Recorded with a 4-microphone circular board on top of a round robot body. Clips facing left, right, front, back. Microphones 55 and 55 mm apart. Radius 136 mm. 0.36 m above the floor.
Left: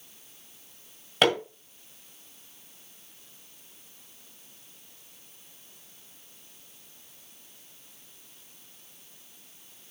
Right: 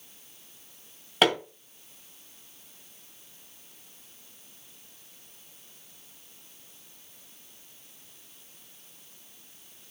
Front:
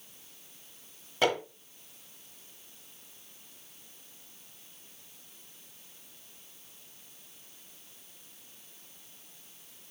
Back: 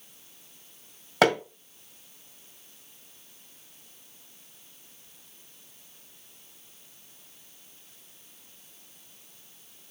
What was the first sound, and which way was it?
Hammering, straight behind.